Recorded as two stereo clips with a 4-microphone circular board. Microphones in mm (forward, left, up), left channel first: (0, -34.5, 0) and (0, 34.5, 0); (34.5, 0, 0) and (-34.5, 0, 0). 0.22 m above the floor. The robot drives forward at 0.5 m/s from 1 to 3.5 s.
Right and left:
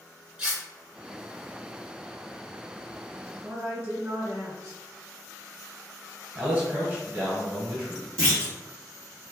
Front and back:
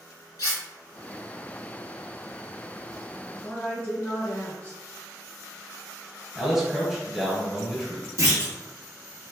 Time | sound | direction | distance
0.4 | cutlery clinking | 10° left | 1.7 m
3.4 | a woman speaking | 45° left | 1.1 m
6.3 | a man speaking | 100° left | 1.2 m
8.2 | a clunk | 165° right | 1.6 m